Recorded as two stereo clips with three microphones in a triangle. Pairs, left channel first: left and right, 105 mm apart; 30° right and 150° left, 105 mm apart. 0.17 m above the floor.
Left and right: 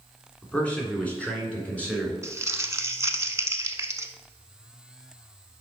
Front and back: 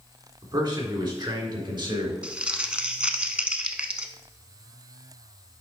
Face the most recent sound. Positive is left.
turn(degrees=-135)